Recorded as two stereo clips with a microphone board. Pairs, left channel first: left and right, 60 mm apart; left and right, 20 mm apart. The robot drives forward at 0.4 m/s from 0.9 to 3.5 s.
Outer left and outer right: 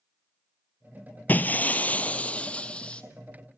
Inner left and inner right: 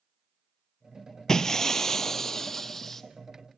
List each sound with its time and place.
1.3 s breaking glass: 30° left (ahead or behind), 0.9 m; by 3.0 s 15° left (ahead or behind), 1.6 m